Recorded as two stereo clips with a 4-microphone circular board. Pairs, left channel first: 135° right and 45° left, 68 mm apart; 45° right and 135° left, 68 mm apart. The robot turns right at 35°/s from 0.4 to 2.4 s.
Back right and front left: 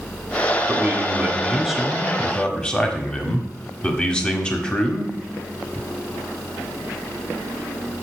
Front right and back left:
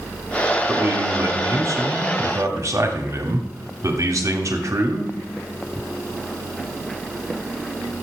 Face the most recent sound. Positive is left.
turn(degrees=155)